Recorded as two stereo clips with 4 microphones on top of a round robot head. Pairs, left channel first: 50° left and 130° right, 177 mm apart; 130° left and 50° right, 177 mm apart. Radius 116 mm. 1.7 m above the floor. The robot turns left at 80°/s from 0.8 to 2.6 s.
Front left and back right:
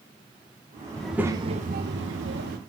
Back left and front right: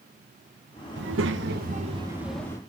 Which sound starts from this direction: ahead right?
A child speaking, at 1.0 s.